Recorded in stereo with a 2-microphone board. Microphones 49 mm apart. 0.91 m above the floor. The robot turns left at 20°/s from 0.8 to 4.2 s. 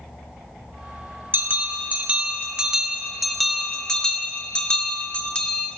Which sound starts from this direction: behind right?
A bell, at 1.3 s.